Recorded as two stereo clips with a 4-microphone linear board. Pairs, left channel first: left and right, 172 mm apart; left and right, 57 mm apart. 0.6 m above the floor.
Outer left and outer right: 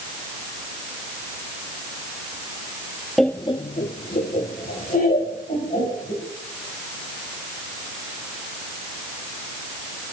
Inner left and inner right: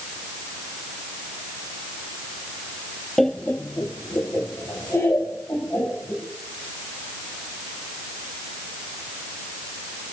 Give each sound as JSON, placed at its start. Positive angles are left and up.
{"t": 3.2, "sound": "laughter", "side_deg": 0, "distance_m": 0.6}